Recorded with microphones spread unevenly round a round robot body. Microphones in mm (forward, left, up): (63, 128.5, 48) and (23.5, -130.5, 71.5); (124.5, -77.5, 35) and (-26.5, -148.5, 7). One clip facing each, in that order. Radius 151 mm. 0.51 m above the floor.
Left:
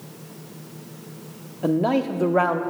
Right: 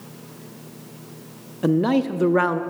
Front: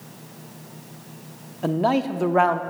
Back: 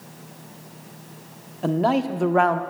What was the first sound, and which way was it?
A man speaking, 85° right.